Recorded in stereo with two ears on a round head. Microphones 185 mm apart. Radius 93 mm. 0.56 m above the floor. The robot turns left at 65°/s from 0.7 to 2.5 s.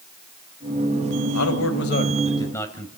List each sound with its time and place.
1.3 s a man speaking: 90° left, 2.5 m; by 2.9 s 15° left, 2.5 m